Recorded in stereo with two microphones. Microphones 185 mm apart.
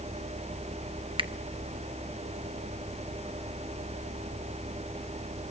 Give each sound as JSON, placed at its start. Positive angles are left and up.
{"t": 1.2, "sound": "a finger snap", "side_deg": -25, "distance_m": 0.9}